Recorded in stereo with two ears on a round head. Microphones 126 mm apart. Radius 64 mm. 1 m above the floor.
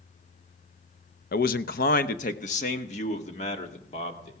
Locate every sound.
1.3 s a man speaking: 65° left (ahead or behind), 0.7 m; by 4.3 s 45° left (ahead or behind), 2.5 m